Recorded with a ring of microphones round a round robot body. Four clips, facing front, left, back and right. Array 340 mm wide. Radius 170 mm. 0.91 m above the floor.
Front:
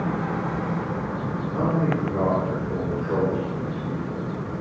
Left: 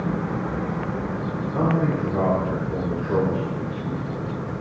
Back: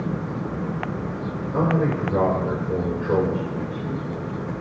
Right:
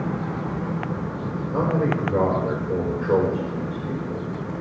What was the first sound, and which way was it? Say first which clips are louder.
A man speaking: even, back 2 dB; 135° right.